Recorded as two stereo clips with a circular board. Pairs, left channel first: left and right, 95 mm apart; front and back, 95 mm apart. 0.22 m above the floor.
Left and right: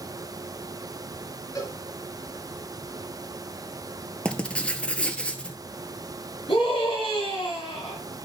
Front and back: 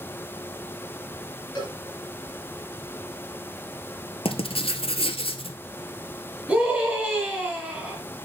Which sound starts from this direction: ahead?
Writing, at 4.2 s.